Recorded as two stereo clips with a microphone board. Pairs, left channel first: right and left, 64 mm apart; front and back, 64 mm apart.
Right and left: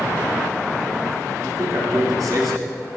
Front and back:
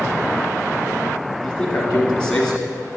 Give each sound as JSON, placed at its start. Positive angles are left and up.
{"t": 1.4, "sound": "a man speaking", "azimuth_deg": 75, "distance_m": 3.0}